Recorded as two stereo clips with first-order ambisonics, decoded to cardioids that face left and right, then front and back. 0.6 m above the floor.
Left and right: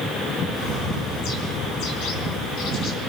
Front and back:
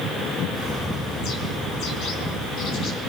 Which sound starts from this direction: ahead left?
A bird, at 0.5 s.